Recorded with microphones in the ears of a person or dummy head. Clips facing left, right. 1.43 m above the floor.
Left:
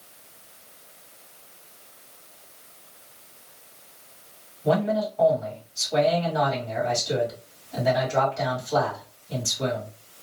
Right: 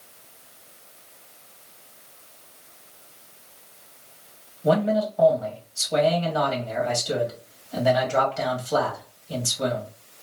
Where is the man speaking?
55° right (ahead or behind), 2.0 m.